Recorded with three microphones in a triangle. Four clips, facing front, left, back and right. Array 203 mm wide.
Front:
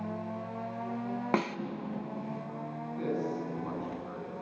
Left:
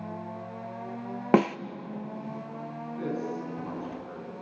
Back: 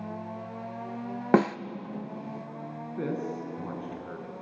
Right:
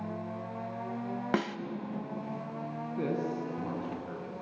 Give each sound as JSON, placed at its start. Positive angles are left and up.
{"t": 1.3, "sound": "a snare drum", "azimuth_deg": 140, "distance_m": 0.8}
{"t": 3.0, "sound": "a man speaking", "azimuth_deg": -145, "distance_m": 5.5}